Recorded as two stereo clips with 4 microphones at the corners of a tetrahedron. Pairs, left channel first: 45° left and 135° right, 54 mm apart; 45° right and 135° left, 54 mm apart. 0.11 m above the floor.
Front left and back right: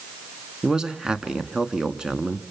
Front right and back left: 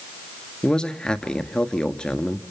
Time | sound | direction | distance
0.6 | a man speaking | 85° right | 1.4 m